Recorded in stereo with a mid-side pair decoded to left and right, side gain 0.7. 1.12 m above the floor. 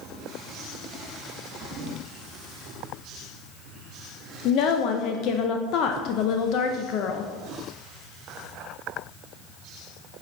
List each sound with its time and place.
4.5 s a woman speaking: 55° left, 0.6 m